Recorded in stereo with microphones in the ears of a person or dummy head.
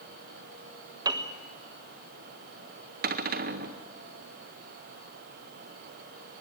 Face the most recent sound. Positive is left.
turn(degrees=-45)  # may be behind; listen again after turning